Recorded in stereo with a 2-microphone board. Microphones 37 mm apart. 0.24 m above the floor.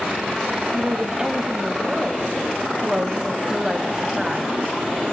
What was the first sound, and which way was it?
A woman speaking, 20° right (ahead or behind).